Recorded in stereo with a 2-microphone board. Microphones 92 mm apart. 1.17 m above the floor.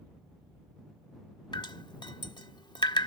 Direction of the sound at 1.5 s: 55° left (ahead or behind).